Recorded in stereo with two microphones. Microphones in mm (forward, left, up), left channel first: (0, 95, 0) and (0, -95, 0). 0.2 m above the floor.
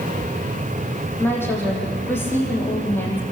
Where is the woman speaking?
10° left (ahead or behind), 7 m.